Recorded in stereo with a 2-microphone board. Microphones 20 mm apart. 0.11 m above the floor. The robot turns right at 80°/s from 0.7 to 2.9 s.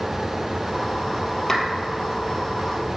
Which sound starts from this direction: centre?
A clap, at 1.5 s.